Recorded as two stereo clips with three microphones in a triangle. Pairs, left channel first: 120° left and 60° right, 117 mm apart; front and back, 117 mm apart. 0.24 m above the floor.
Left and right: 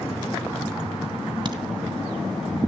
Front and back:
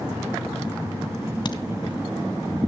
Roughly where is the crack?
Ahead right.